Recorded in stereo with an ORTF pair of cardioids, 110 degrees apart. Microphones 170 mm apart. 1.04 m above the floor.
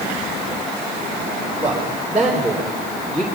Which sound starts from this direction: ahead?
A man speaking, at 1.6 s.